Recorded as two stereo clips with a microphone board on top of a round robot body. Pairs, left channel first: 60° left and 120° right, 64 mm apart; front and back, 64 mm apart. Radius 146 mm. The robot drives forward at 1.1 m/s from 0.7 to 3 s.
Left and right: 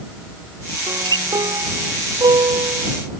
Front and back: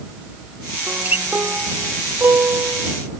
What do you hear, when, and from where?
0.9 s a guitar: 115° right; by 3.1 s 130° right